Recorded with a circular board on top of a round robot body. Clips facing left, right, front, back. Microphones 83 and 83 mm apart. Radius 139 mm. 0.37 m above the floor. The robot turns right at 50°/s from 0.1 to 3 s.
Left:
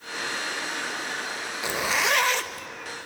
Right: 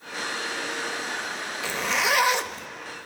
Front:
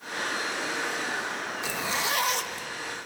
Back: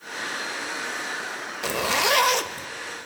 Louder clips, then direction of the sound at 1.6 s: Even, back 8 dB; 160° left.